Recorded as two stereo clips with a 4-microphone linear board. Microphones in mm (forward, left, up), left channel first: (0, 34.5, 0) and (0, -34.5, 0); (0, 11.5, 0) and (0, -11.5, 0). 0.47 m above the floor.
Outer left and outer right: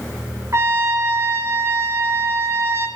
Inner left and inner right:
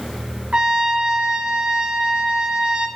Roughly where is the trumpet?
Right.